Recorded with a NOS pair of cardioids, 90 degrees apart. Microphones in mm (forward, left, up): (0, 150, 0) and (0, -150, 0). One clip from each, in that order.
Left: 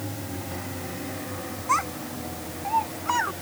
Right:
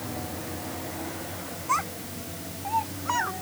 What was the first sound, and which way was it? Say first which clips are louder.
A child speaking: left 3 dB; 20° left.